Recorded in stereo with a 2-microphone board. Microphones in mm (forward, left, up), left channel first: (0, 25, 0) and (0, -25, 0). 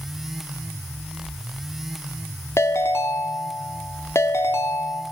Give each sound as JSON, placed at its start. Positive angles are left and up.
{"t": 2.6, "sound": "a ringtone", "side_deg": 65, "distance_m": 0.7}